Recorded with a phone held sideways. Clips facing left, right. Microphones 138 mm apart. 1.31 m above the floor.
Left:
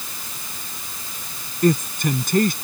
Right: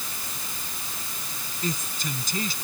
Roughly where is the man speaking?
Left.